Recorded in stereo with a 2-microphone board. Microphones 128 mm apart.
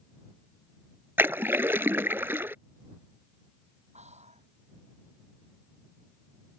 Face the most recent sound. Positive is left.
turn(degrees=-65)  # may be behind; listen again after turning